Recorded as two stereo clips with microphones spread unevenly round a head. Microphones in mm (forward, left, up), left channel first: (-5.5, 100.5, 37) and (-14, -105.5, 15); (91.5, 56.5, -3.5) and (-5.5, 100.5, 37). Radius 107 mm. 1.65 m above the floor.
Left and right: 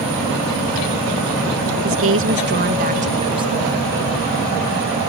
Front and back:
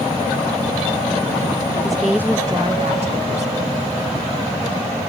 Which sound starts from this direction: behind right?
A woman speaking, at 1.8 s.